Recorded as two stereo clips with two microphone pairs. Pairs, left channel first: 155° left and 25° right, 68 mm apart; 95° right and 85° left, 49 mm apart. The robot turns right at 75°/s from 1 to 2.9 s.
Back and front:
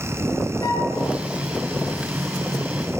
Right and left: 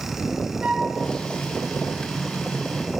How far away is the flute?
About 0.8 m.